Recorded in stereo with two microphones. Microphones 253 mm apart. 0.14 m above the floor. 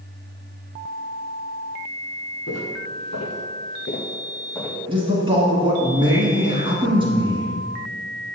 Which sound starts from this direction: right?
A man speaking, at 4.9 s.